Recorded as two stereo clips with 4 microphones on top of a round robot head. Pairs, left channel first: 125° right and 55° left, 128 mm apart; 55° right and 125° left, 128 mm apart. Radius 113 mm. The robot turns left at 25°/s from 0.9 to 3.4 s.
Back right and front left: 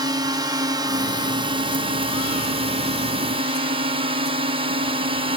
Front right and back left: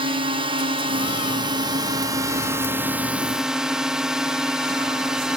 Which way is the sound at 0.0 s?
105° left.